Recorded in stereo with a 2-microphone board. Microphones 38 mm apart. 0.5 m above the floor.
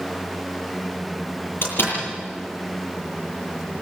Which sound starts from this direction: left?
A door slam, at 1.6 s.